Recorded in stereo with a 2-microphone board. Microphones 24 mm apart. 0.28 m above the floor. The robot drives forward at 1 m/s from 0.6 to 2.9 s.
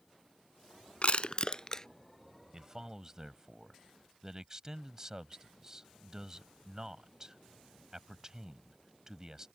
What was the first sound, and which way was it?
Crushing, 60° left (ahead or behind).